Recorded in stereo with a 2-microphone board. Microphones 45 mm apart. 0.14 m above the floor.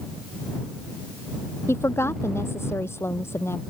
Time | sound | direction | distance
1.7 | a woman speaking | 75° left (ahead or behind) | ?